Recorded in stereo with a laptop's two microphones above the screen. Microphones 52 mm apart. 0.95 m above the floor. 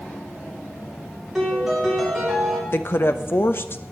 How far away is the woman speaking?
About 0.8 m.